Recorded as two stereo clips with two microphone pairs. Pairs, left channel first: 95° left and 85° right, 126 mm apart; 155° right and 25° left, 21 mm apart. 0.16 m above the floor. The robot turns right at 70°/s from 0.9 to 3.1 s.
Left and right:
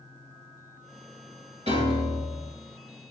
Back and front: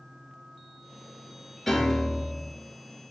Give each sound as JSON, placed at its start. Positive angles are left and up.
{"t": 1.7, "sound": "a piano", "azimuth_deg": -65, "distance_m": 1.3}